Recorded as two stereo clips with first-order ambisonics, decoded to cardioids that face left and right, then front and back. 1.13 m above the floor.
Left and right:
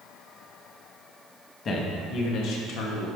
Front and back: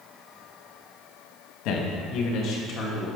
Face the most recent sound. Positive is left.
turn(degrees=65)